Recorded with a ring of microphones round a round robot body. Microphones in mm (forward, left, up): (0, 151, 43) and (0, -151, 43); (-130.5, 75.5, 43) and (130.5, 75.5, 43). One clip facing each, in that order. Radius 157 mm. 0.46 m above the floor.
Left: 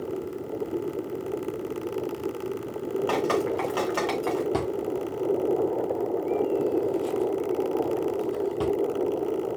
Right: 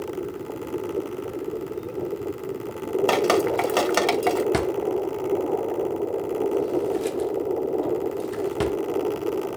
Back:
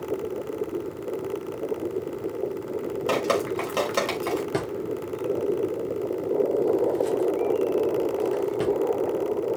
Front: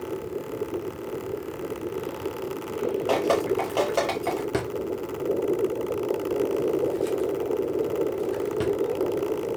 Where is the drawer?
85° right, 0.6 m.